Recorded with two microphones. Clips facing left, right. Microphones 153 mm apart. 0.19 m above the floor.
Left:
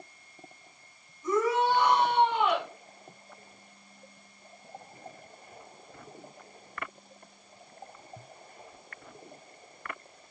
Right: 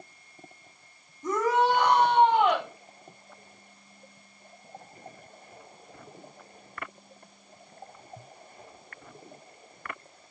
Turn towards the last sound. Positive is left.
turn(degrees=-40)  # may be behind; listen again after turning